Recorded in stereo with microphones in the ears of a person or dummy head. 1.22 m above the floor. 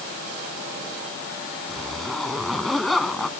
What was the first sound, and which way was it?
A zipper, 5° left (ahead or behind).